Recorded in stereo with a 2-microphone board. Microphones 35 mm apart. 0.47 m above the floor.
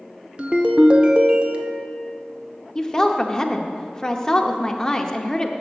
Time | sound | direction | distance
0.4 | a ringtone | 35° right (ahead or behind) | 0.8 m
2.8 | a woman speaking | 20° left (ahead or behind) | 0.7 m